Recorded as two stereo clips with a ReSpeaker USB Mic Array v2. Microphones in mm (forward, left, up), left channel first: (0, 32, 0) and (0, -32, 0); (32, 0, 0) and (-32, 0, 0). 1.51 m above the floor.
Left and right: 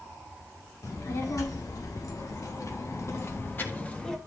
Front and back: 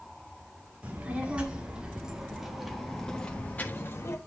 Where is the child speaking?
115° left, 2.5 m; by 4.2 s 20° left, 1.1 m.